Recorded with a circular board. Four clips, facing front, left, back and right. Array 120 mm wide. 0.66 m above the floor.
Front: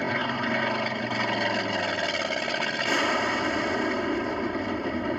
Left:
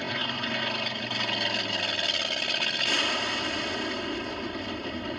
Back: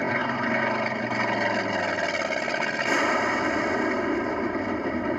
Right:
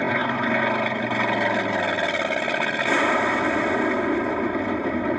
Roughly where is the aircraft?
Right.